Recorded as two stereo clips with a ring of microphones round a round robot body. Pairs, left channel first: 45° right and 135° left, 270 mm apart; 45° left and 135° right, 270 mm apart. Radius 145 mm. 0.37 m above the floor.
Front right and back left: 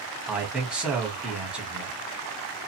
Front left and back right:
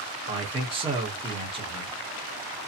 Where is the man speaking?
145° right, 1.3 m.